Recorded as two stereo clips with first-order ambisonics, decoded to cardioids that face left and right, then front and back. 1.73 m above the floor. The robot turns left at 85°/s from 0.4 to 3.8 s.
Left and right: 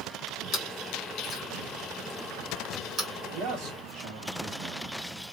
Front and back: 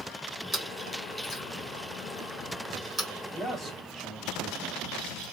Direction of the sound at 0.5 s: 95° left.